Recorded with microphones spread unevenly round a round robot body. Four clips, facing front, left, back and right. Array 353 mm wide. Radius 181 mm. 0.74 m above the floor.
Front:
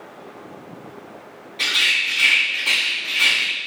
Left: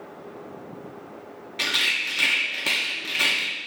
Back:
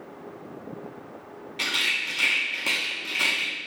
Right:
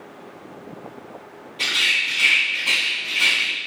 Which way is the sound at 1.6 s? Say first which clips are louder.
Right 3 dB, front 6 dB; 110° left.